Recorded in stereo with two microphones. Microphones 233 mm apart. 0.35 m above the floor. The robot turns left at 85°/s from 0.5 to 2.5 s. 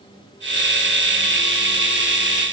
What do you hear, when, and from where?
Only background noise.